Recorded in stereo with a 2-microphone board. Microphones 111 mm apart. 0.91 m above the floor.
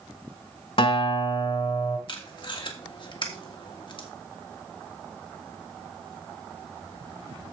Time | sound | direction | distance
0.8 | a guitar | 55° left (ahead or behind) | 1.2 m
2.1 | tape being pulled | 50° left (ahead or behind) | 1.6 m